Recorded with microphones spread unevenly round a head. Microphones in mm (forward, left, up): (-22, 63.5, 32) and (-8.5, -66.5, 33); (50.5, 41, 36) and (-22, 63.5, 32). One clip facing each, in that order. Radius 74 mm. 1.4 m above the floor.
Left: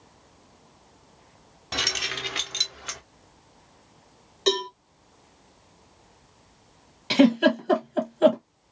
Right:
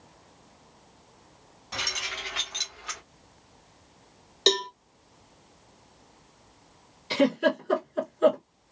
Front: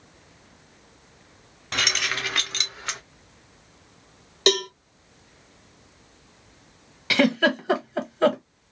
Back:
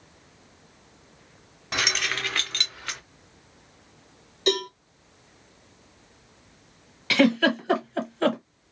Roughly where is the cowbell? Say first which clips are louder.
Left 1 dB, front 3 dB; ahead.